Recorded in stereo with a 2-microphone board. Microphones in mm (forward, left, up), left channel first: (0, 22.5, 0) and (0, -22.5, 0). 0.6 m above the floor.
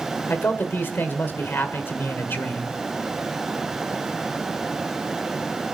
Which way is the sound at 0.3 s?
55° left (ahead or behind).